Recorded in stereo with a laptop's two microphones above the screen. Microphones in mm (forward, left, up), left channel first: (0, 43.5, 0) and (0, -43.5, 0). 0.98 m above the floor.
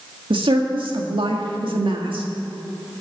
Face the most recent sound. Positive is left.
turn(degrees=-70)  # may be behind; listen again after turning